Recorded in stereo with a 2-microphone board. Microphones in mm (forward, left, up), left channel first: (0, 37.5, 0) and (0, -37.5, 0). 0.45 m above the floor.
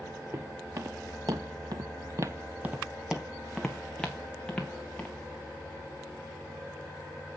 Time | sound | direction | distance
0.3 | footsteps | 45° right (ahead or behind) | 1.7 m